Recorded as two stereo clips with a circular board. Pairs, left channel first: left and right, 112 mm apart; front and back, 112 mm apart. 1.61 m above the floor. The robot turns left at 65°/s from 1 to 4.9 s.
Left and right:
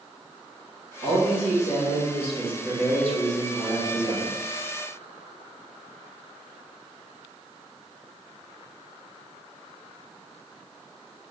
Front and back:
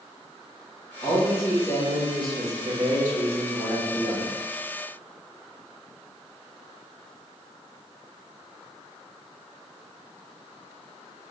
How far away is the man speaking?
About 1.8 m.